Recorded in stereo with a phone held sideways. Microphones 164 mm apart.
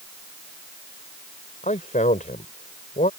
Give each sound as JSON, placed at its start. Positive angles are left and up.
{"t": 1.6, "sound": "a man speaking", "side_deg": 55}